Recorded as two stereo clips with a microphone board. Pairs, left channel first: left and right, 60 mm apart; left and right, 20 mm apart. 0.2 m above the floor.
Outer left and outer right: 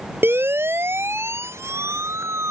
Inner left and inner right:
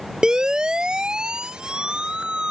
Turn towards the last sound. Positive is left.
turn(degrees=-55)  # may be behind; listen again after turning